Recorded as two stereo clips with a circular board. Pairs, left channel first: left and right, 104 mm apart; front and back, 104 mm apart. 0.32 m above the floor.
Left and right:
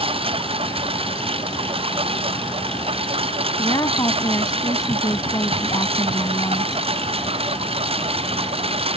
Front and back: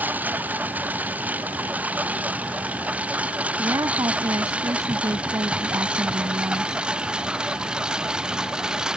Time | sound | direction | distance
0.0 | a lawn mower | 105° right | ?
3.6 | a woman speaking | 135° left | ?